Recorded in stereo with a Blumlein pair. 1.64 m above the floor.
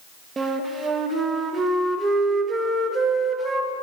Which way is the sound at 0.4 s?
15° right.